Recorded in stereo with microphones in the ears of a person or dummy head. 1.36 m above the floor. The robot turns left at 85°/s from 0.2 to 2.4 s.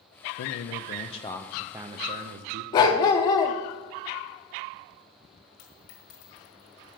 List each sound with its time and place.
0.4 s a man speaking: 95° left, 0.6 m; by 2.6 s 75° right, 0.6 m
2.7 s a dog barking: 20° left (ahead or behind), 0.8 m
5.6 s a dropped coin: 45° left (ahead or behind), 1.6 m